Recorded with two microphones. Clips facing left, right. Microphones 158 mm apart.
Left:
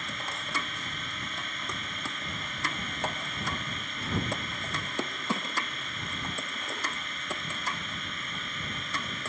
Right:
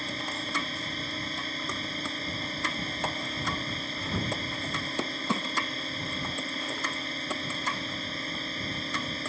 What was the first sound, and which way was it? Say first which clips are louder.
A drone: right 4 dB; 35° right (ahead or behind).